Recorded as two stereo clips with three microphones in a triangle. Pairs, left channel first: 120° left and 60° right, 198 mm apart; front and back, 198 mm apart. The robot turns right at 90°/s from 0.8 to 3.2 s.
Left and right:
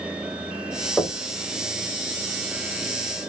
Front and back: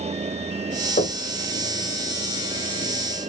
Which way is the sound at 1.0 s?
35° left.